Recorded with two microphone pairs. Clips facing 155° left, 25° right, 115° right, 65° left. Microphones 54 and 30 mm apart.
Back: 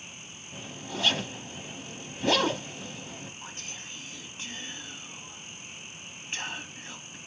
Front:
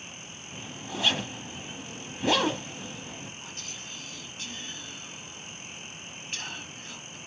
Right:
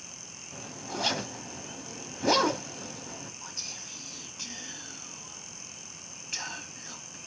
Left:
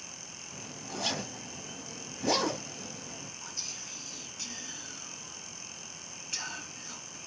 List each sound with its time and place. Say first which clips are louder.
0.5 s a zipper: even, right 4 dB; 100° right, 1.2 m
3.4 s whispering: even, even; 170° right, 1.3 m